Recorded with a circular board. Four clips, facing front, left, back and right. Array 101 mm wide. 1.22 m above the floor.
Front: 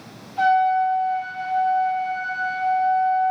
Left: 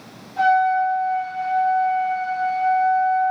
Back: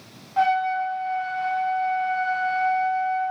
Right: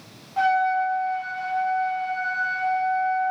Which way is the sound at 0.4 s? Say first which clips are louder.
Left 4 dB, front 4 dB; 165° right.